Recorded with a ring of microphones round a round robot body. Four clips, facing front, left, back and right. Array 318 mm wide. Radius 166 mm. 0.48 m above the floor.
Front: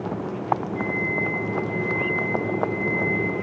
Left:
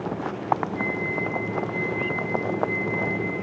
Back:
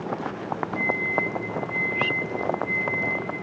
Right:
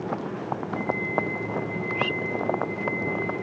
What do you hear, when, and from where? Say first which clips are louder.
0.8 s a microwave: right 1 dB, even; 110° left, 8 m